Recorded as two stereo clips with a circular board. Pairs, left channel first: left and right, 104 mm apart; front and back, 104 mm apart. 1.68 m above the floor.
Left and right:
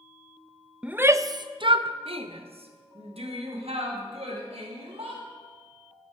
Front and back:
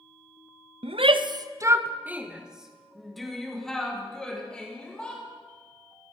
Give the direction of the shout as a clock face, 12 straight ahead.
6 o'clock.